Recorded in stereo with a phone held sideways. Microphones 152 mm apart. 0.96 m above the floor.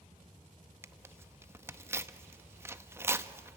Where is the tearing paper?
15° right (ahead or behind), 0.7 m.